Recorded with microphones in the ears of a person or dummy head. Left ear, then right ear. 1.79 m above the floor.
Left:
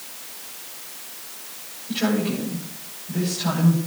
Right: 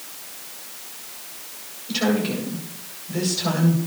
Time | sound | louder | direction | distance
1.9 | a woman speaking | right 1 dB | 80° right | 9 m